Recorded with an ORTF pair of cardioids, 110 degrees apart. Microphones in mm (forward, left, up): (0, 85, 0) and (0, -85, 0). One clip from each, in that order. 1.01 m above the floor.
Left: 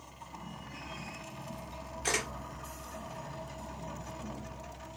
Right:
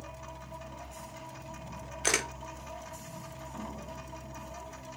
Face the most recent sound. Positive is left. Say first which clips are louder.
# right 3 dB
turn(degrees=-45)